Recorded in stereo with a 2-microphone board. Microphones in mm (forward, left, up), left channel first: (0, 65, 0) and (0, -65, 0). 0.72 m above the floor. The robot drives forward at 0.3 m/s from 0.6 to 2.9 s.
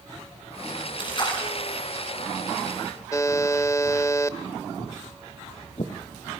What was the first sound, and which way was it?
A splash, 40° left (ahead or behind).